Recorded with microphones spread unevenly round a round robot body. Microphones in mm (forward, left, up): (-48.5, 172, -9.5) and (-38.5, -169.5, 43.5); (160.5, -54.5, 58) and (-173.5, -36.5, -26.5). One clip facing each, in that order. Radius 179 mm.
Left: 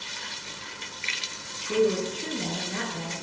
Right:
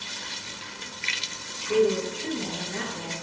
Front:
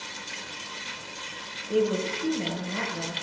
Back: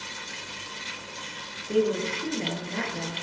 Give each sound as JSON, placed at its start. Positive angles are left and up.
{"t": 1.7, "sound": "a woman speaking", "azimuth_deg": 110, "distance_m": 7.0}